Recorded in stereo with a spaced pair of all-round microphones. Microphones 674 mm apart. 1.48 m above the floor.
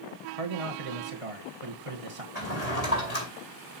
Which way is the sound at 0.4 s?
55° right (ahead or behind).